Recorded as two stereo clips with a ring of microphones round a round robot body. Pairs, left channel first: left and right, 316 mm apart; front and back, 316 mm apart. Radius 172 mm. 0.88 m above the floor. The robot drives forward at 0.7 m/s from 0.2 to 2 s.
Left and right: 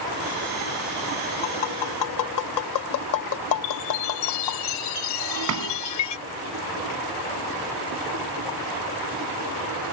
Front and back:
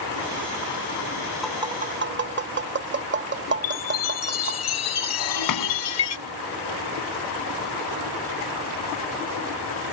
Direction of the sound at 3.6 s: 45° left.